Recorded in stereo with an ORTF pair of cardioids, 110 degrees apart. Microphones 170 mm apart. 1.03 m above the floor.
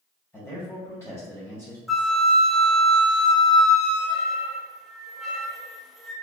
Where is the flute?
Straight ahead, 0.9 m.